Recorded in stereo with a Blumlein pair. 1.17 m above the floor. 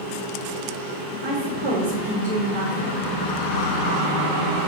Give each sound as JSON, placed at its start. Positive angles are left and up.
{"t": 1.2, "sound": "a woman speaking", "azimuth_deg": -45, "distance_m": 1.4}